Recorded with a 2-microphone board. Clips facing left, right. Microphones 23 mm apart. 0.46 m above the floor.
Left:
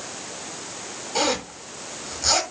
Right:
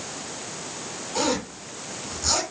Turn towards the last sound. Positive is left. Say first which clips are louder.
# left 2 dB
turn(degrees=35)  # may be behind; listen again after turning